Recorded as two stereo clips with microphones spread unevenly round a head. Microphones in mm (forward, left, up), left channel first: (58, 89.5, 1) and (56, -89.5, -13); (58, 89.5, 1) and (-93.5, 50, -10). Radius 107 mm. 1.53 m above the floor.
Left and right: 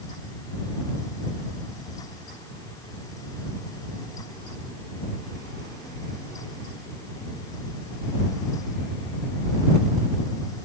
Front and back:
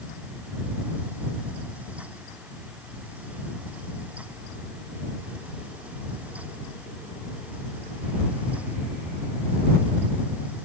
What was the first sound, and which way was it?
Only background noise.